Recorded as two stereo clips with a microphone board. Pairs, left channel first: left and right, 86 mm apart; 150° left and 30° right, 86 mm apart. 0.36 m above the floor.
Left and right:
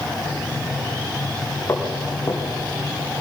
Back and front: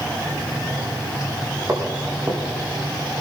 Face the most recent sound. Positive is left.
turn(degrees=25)